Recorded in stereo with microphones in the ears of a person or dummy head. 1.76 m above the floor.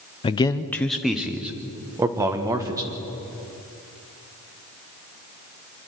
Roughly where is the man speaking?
Left.